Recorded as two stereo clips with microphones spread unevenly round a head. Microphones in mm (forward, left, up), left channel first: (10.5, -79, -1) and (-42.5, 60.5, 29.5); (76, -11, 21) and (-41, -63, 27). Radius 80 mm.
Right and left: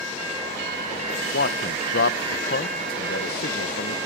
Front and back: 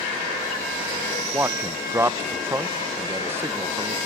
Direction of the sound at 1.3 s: 85° right.